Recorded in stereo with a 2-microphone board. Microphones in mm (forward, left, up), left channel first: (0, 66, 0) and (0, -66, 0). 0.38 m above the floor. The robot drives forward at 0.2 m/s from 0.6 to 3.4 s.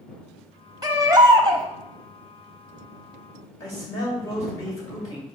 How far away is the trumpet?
No trumpet in this recording.